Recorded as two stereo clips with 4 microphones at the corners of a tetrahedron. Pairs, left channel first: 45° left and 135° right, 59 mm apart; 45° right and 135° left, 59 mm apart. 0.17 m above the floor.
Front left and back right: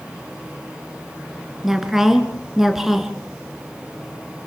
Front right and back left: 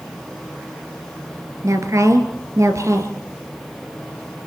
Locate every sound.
1.6 s a woman speaking: 140° left, 2.5 m